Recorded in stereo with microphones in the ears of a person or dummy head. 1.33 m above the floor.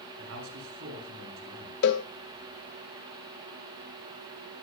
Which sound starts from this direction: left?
A cowbell, at 1.8 s.